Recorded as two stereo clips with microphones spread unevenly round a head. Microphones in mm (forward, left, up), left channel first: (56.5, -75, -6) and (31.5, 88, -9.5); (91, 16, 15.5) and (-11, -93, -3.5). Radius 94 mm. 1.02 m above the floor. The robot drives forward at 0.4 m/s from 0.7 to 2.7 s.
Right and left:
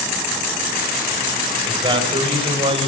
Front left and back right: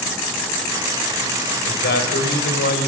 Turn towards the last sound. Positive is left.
turn(degrees=40)